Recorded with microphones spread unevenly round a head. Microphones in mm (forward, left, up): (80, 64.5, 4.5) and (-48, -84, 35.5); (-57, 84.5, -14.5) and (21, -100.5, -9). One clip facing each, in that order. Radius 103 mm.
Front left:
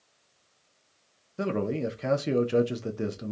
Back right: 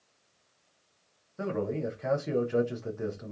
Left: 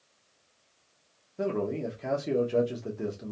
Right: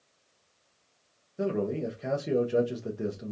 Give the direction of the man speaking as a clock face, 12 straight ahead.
11 o'clock.